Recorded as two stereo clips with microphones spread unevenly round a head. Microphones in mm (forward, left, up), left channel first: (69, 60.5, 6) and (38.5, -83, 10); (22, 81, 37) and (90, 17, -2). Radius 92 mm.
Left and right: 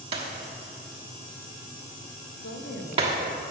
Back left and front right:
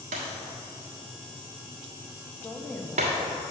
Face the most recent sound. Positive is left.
turn(degrees=65)